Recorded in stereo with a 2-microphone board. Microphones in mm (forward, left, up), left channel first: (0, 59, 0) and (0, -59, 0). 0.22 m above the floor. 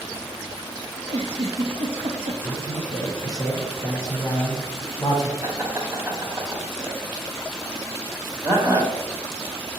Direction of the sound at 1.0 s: 80° right.